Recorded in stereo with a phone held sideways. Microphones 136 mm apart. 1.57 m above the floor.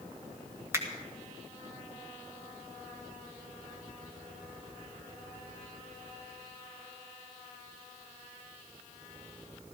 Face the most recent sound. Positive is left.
turn(degrees=-20)  # may be behind; listen again after turning